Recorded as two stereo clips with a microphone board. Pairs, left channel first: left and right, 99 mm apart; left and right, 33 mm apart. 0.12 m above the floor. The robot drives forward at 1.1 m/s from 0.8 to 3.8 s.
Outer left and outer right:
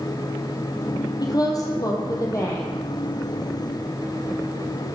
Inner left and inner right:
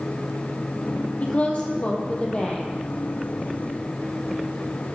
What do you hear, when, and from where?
1.2 s a woman speaking: 40° left (ahead or behind), 4 m; by 2.8 s 30° left (ahead or behind), 5 m